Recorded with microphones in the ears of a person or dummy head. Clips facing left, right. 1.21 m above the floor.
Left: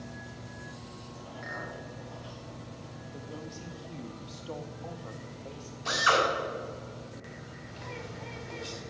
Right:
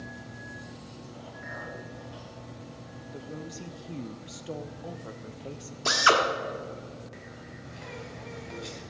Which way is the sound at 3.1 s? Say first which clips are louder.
Right 3 dB; 25° right (ahead or behind).